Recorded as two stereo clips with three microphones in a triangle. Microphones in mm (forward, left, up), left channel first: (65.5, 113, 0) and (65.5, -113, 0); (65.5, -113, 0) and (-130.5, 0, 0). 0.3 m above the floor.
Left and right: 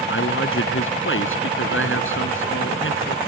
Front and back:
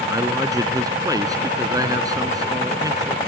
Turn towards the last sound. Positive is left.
turn(degrees=75)